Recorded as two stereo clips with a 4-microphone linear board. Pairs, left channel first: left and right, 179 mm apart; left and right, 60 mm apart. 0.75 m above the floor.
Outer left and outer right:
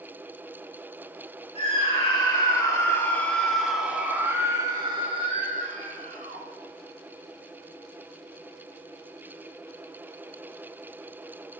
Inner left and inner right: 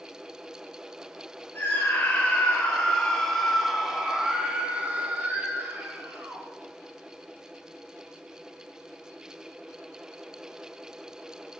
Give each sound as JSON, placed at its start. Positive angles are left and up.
{"t": 1.6, "sound": "a scream", "side_deg": 30, "distance_m": 2.5}